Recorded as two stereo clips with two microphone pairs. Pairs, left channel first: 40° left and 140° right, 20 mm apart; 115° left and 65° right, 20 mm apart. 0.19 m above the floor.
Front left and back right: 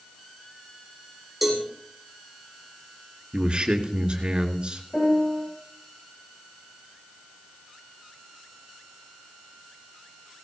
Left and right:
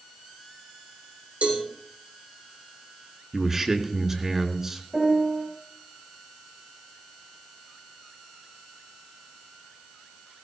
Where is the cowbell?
60° right, 6 m.